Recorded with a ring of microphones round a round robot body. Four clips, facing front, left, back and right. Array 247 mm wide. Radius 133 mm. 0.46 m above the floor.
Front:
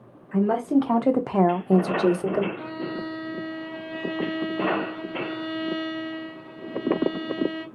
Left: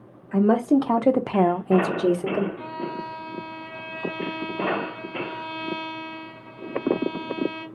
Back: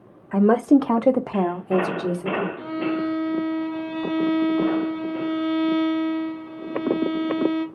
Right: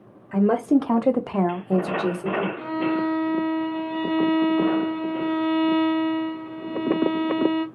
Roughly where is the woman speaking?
Behind.